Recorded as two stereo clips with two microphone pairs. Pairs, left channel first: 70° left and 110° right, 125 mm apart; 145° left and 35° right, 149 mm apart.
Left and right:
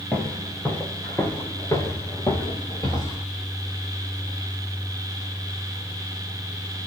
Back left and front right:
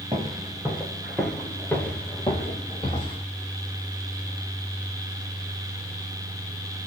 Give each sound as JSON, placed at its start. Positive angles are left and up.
{"t": 0.1, "sound": "footsteps", "azimuth_deg": -10, "distance_m": 1.6}